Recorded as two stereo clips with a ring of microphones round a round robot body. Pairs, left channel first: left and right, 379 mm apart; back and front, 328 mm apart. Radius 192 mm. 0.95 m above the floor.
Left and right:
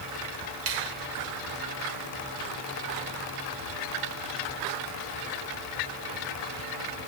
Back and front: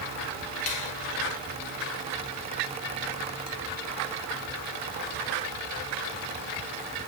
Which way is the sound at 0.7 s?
145° right.